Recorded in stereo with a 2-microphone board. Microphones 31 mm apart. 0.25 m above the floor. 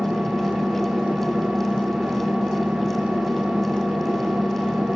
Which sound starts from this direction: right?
An engine running, at 0.0 s.